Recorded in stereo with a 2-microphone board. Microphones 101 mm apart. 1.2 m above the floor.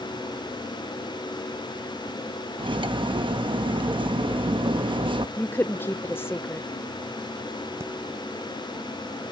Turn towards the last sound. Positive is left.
turn(degrees=-25)  # may be behind; listen again after turning